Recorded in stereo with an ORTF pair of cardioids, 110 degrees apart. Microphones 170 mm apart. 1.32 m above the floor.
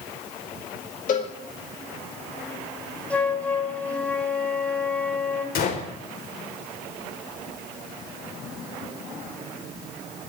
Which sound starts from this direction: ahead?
A flute, at 3.1 s.